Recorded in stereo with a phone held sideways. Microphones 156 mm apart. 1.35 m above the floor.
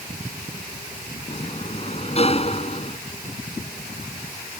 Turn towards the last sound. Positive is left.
turn(degrees=40)  # may be behind; listen again after turning